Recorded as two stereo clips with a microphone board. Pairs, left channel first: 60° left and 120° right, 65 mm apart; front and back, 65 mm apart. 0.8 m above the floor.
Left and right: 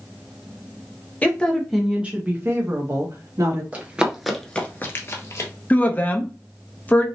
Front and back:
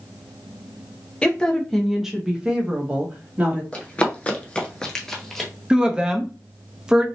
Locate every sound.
1.2 s a woman speaking: 40° left, 0.7 m; by 3.6 s 120° right, 1.3 m
3.7 s running footsteps: 65° right, 1.0 m; by 5.5 s 90° left, 1.3 m
5.7 s a woman speaking: 110° left, 0.7 m